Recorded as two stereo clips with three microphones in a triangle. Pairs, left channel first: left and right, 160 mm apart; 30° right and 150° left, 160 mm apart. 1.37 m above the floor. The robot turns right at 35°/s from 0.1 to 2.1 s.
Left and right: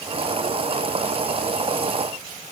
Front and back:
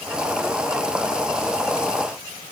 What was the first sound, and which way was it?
Only background noise.